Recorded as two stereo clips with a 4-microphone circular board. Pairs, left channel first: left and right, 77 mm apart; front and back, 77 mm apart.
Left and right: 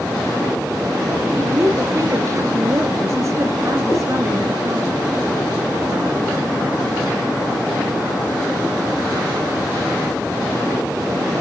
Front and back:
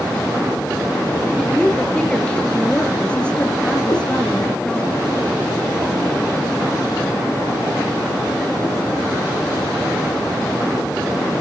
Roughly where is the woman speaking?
Right.